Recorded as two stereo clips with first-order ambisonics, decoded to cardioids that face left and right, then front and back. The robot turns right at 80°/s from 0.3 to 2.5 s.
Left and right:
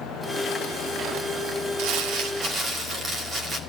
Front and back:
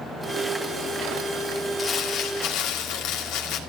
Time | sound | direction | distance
1.8 | crumpling | 85° right | 2.5 m